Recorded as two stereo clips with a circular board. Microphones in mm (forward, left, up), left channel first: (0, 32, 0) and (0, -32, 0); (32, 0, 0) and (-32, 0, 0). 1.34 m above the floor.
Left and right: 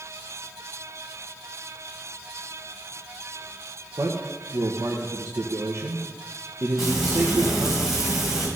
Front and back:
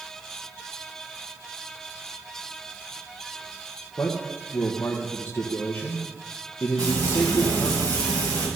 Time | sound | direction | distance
4.0 | a man speaking | 60° right | 1.2 m
6.8 | frying | 175° right | 5.5 m